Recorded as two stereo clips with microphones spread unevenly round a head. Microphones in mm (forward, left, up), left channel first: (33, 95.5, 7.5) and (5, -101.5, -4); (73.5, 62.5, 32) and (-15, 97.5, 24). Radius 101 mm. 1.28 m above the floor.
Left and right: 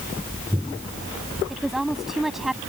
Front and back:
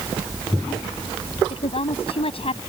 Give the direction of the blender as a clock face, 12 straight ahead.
No blender in this recording.